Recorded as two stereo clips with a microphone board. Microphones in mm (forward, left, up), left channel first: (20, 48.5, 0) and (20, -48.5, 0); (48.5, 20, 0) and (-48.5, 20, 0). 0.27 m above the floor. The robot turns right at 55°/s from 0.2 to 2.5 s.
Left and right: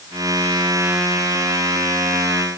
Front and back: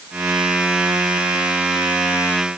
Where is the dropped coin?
No dropped coin in this recording.